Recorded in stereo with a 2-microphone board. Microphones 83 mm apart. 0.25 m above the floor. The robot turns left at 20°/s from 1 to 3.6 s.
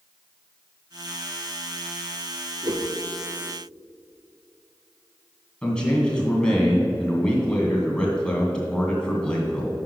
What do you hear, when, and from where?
2.6 s a whoosh: 55° right (ahead or behind), 0.8 m; by 2.9 s 65° right (ahead or behind), 0.8 m
5.6 s a man speaking: 10° left (ahead or behind), 2 m